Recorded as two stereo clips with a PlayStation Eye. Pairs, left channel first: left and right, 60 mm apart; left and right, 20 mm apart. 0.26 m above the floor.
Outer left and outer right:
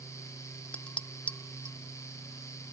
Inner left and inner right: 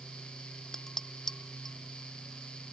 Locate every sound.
0.7 s dishes clattering: 20° left (ahead or behind)